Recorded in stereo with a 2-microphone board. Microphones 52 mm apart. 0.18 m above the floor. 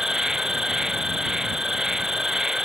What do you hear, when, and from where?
0.0 s an insect: 10° right (ahead or behind)